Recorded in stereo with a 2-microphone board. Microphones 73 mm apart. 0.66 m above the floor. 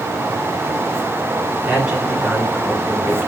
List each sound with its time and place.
1.6 s a man speaking: 5° right (ahead or behind), 6 m